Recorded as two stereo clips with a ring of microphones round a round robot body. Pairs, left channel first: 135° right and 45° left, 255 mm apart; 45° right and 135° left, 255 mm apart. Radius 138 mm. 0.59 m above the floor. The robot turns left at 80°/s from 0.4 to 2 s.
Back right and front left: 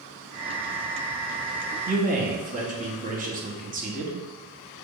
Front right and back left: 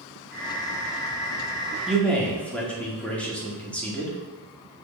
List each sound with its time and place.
1.9 s a man speaking: 45° left, 1.0 m; by 4.2 s 35° left, 1.0 m